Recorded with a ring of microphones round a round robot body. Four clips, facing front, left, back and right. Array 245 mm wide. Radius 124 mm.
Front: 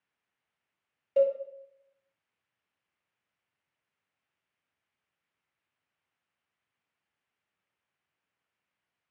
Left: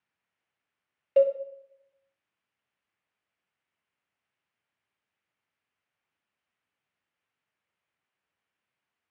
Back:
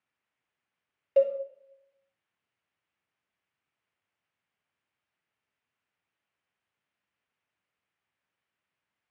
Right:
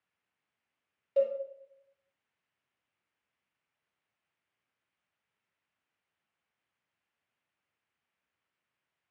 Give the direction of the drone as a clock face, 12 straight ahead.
No drone in this recording.